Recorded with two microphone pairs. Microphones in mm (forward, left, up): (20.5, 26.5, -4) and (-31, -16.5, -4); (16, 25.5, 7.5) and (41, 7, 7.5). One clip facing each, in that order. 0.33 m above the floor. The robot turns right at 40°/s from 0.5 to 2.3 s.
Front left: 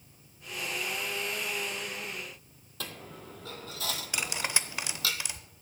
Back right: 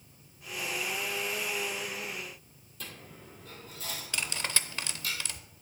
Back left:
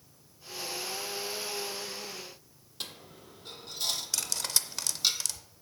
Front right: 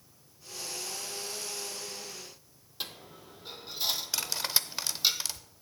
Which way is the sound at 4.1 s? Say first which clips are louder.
Even, front right 1 dB; 5° right.